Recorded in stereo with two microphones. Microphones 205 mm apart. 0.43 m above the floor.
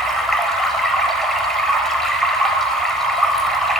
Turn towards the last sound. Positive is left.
turn(degrees=0)  # may be behind; listen again after turning